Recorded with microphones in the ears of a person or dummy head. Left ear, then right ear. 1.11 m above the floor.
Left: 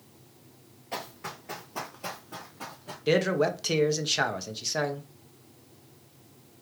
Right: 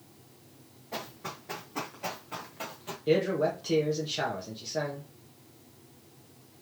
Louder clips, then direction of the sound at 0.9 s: Left 2 dB; 20° left (ahead or behind).